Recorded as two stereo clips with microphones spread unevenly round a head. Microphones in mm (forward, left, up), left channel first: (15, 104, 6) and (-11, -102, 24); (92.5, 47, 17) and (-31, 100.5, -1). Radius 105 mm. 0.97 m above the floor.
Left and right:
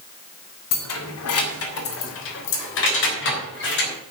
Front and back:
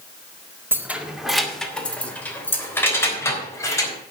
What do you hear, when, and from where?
0.7 s keys jangling: 80° left, 1.7 m; by 3.9 s 45° left, 4.5 m